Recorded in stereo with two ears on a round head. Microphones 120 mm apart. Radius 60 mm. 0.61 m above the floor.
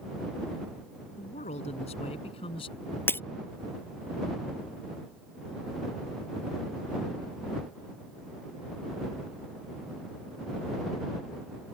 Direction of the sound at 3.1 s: 15° left (ahead or behind).